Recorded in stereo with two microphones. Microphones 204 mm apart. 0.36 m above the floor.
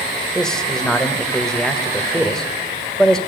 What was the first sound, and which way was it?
A man speaking, 5° left (ahead or behind).